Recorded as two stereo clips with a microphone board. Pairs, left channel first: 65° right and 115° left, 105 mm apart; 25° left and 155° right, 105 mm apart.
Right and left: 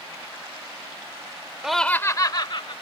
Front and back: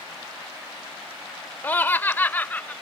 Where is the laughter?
40° left; by 2.7 s 50° right.